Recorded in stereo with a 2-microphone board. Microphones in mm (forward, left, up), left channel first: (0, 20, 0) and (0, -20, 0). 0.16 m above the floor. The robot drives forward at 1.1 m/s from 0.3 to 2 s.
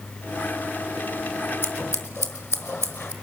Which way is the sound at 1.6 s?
65° left (ahead or behind).